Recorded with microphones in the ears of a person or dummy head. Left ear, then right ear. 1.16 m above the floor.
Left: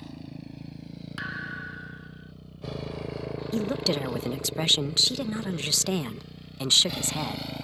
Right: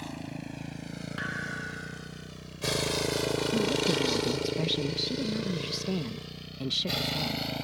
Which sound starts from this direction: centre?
A thud, at 1.2 s.